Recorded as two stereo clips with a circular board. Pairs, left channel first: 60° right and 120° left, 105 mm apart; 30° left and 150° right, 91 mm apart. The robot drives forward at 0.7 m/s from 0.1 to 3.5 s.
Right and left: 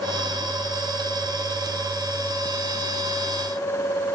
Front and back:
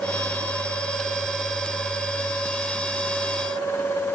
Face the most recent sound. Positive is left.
No sound to turn to.